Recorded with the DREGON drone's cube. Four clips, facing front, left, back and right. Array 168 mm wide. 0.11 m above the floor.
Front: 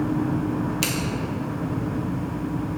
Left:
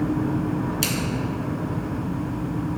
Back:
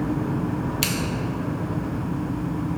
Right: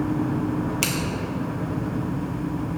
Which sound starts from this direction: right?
Scissors, at 0.8 s.